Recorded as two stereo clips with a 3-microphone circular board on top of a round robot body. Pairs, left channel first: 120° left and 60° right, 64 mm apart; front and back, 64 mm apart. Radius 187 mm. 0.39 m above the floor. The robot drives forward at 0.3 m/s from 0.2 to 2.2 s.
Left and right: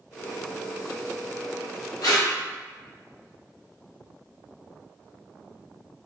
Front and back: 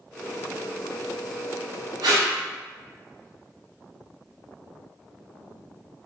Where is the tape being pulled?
160° left, 0.6 m.